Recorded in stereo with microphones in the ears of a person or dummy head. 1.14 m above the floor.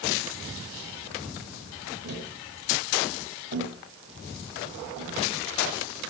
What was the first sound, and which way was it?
Tapping, 70° right (ahead or behind).